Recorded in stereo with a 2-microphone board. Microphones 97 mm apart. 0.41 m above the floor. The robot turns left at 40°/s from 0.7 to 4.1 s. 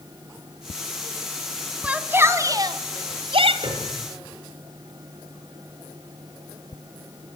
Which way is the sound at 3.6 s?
65° right (ahead or behind).